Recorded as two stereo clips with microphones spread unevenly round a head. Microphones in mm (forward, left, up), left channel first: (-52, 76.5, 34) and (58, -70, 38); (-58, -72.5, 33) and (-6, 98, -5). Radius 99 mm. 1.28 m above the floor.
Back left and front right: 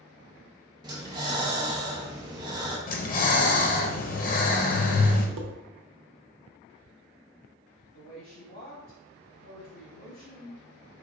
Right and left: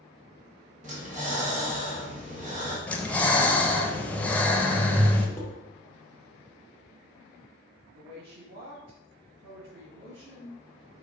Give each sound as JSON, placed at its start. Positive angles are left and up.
{"t": 0.8, "sound": "breathing", "azimuth_deg": 15, "distance_m": 0.9}
{"t": 2.9, "sound": "breathing", "azimuth_deg": 165, "distance_m": 0.6}
{"t": 5.4, "sound": "dishes clattering", "azimuth_deg": -30, "distance_m": 0.8}
{"t": 7.9, "sound": "a woman speaking", "azimuth_deg": 80, "distance_m": 2.0}